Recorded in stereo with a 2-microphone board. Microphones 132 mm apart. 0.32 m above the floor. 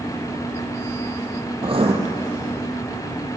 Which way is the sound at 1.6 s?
45° right (ahead or behind).